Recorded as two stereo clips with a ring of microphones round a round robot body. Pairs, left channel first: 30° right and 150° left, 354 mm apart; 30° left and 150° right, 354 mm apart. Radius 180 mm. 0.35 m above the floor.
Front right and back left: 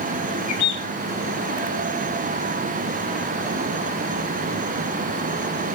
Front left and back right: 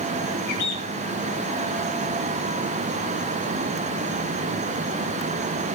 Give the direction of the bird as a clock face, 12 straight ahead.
12 o'clock.